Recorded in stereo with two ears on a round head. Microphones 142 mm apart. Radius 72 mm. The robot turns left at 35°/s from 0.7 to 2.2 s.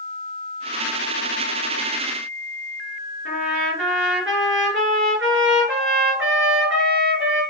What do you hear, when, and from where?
3.2 s a trumpet: 85° right, 3.5 m